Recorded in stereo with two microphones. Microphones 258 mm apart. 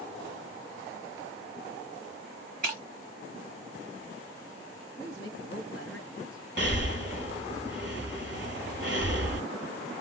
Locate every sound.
2.6 s breaking glass: 35° right (ahead or behind), 1.1 m
5.0 s a woman speaking: 50° left (ahead or behind), 1.6 m
6.6 s breathing: 45° right (ahead or behind), 1.1 m